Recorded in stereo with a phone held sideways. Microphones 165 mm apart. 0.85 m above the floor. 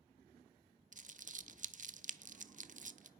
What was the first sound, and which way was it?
Crumpling, 50° right (ahead or behind).